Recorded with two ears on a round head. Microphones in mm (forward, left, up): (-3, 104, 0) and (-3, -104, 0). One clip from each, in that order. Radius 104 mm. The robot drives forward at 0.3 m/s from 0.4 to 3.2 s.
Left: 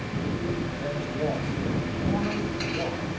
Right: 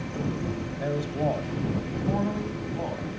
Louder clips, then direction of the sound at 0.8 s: Even; 65° right (ahead or behind).